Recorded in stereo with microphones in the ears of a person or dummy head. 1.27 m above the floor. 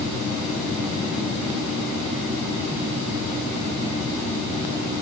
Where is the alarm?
No alarm in this recording.